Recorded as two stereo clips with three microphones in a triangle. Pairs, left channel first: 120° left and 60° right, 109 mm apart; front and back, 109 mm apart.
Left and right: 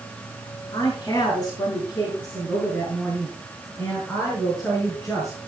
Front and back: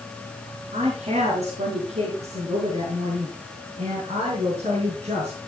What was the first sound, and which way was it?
A woman speaking, 175° right.